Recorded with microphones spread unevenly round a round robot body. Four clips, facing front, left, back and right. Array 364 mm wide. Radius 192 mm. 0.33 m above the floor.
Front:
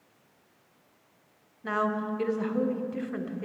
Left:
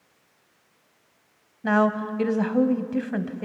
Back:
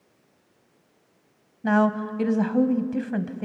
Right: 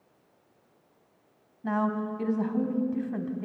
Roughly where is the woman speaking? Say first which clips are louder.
Left 7 dB, back 7 dB; behind left.